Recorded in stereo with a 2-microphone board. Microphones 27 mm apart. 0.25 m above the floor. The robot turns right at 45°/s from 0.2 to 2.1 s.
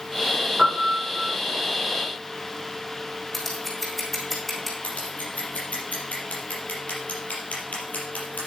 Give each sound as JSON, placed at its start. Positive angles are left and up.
{"t": 0.6, "sound": "a piano", "azimuth_deg": -25, "distance_m": 5.5}
{"t": 3.3, "sound": "scissors", "side_deg": 5, "distance_m": 3.5}
{"t": 4.8, "sound": "scissors", "side_deg": 60, "distance_m": 4.5}